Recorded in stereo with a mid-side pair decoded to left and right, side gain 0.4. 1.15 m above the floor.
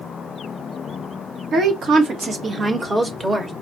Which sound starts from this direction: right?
A woman speaking, at 1.5 s.